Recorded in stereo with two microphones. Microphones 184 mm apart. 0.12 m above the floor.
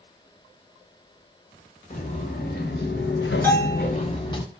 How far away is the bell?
About 1.1 m.